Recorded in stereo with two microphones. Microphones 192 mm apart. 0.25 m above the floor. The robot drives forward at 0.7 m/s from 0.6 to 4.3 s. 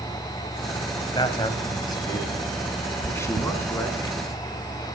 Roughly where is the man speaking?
Left.